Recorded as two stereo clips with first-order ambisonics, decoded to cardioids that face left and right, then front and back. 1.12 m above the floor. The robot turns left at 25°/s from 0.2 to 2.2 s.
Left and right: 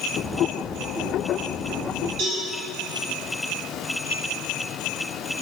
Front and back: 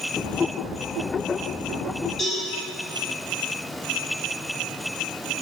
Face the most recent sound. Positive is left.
turn(degrees=-80)